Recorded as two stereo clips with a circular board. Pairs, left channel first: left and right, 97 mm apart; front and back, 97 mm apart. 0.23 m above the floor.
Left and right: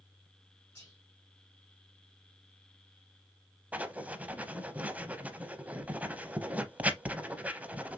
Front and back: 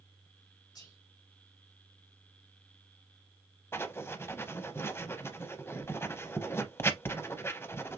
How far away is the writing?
About 0.5 m.